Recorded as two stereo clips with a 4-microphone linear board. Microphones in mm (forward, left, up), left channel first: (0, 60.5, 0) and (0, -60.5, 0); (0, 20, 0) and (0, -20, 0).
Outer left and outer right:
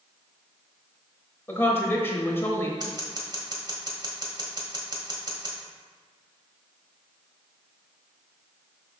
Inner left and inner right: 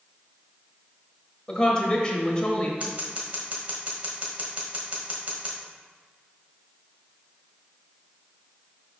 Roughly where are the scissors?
Right.